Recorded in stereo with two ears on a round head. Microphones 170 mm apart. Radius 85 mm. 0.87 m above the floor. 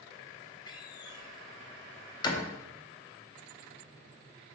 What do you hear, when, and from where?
0.7 s a door slam: 25° left (ahead or behind), 0.8 m